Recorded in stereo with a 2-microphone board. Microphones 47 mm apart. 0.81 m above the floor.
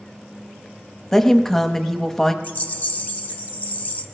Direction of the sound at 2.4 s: 45° left (ahead or behind).